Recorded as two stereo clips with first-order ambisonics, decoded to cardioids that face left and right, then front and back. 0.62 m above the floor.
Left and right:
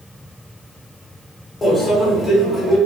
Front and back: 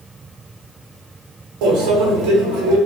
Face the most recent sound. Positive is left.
turn(degrees=165)